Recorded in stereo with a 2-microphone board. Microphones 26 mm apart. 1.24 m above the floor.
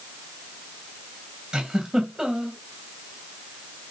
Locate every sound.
1.5 s a giggle: 30° right (ahead or behind), 2.5 m